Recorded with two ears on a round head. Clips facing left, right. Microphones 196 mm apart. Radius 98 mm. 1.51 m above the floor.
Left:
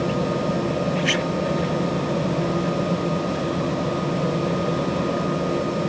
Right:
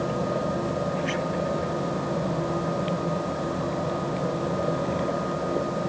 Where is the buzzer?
I don't hear a buzzer.